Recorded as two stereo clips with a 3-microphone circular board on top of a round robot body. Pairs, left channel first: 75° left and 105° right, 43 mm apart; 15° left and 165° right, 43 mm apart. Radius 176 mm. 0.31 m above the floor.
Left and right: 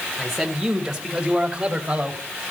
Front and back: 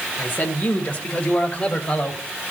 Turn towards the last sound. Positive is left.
turn(degrees=-45)